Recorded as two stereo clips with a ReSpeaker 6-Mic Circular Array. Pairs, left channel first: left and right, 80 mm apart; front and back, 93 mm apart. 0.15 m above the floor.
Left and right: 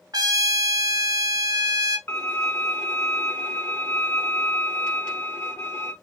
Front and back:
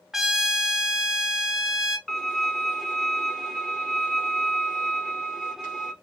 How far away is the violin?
About 1.3 m.